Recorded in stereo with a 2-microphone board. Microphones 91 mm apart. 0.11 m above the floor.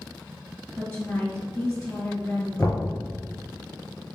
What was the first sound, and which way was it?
A woman speaking, 15° left (ahead or behind).